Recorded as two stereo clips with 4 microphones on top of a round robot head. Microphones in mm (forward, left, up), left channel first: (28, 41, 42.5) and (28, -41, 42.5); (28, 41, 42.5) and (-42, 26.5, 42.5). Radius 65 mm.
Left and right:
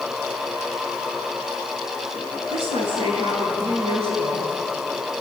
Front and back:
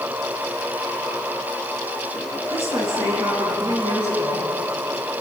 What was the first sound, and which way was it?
A woman speaking, 110° right.